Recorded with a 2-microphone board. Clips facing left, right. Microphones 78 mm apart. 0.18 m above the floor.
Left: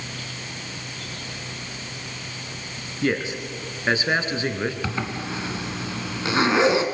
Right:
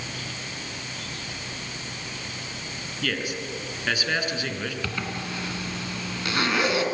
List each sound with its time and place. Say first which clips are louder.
3.0 s a man speaking: left 5 dB; 30° left (ahead or behind), 2.5 m
4.8 s a zipper: left 3 dB; 25° left (ahead or behind), 2 m